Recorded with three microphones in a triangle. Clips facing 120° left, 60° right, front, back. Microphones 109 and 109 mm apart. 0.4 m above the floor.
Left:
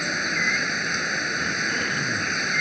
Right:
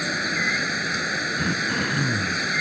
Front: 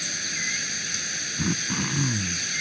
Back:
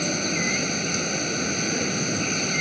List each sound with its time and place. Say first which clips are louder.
0.0 s running water: right 1 dB, back 11 dB; 145° right
1.4 s throat clearing: right 2 dB, front 3 dB; 10° right